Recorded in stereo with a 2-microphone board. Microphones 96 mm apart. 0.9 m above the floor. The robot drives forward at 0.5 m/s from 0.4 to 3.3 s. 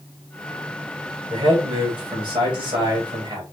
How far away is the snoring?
I don't hear snoring.